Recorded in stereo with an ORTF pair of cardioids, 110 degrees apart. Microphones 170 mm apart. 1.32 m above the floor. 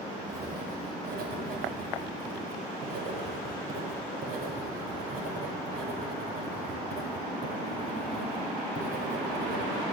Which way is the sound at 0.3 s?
60° right.